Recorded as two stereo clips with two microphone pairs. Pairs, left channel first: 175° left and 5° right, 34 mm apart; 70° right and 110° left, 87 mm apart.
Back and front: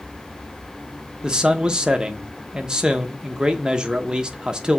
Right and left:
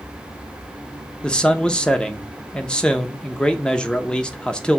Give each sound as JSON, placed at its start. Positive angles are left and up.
{"t": 1.2, "sound": "a man speaking", "azimuth_deg": -10, "distance_m": 0.7}